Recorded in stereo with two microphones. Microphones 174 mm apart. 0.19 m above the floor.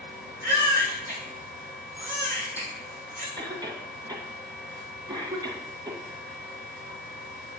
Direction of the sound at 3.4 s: 25° right (ahead or behind).